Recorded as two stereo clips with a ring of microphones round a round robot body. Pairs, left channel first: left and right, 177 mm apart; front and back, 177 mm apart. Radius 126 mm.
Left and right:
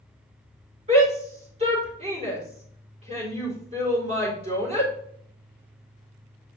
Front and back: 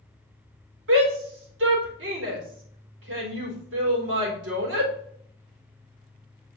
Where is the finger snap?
No finger snap in this recording.